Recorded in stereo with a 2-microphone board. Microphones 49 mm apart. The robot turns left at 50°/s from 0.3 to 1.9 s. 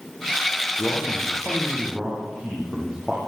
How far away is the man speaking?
About 6 m.